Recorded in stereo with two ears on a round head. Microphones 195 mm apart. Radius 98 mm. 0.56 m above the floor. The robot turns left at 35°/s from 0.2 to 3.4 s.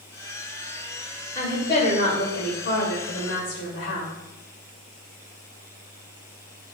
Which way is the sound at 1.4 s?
155° left.